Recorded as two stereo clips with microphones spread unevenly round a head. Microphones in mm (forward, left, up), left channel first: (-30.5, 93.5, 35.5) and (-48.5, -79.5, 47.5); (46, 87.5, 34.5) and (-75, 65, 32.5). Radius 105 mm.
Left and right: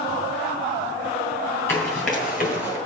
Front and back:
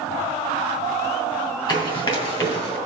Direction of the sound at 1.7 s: 10° left.